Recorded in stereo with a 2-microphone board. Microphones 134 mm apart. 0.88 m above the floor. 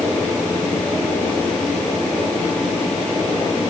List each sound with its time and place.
Only background noise.